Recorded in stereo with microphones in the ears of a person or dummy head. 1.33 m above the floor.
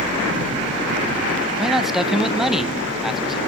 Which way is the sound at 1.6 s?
5° left (ahead or behind).